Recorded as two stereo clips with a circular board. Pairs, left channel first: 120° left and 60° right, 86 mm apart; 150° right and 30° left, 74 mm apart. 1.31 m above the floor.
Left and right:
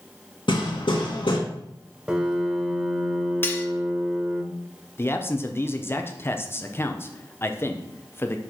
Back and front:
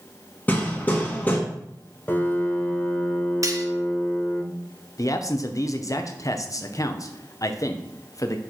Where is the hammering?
145° left, 1.6 m.